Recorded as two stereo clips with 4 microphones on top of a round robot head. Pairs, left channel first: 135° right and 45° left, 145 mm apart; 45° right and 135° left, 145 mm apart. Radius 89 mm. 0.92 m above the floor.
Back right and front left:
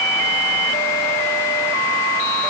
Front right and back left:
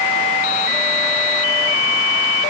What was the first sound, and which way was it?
Only background noise.